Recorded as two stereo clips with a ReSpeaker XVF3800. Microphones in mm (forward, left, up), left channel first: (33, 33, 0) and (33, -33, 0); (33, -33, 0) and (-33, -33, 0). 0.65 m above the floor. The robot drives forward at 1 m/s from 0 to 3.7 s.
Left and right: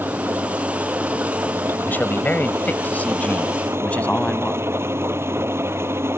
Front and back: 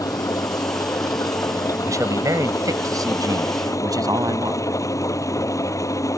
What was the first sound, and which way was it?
An engine running, 30° right.